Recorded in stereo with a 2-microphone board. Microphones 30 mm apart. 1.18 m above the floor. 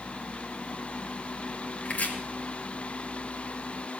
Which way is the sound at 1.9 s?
55° left (ahead or behind).